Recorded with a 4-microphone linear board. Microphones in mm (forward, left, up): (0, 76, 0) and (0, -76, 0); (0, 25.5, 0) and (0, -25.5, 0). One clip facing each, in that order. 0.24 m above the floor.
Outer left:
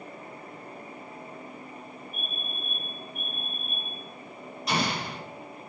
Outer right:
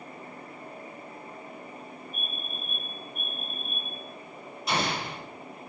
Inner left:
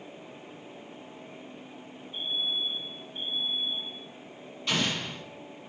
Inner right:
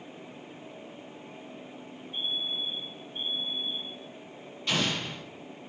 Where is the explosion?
Centre (ahead or behind), 5 m.